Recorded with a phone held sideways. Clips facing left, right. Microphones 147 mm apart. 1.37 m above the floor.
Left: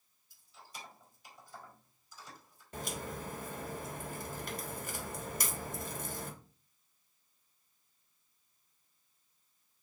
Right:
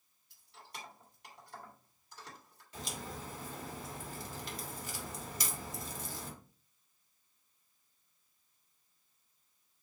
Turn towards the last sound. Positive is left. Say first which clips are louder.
# left 3 dB
turn(degrees=55)  # may be behind; listen again after turning